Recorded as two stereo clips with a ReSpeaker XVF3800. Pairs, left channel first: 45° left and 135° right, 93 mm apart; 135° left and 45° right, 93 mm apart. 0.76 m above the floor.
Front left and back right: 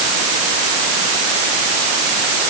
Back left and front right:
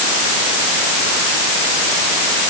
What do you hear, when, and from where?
Only background noise.